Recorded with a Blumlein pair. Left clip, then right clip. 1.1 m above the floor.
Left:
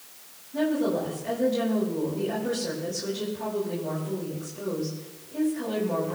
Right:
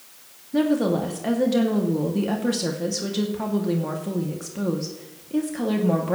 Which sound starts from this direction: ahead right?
A woman speaking, at 0.5 s.